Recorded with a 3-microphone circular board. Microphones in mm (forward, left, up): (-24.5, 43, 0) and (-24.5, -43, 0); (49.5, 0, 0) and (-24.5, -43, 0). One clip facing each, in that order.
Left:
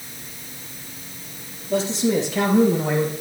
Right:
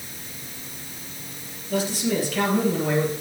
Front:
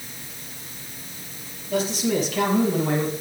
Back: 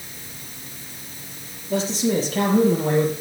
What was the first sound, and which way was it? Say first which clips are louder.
A man speaking: left 4 dB, back 1 dB; 150° left.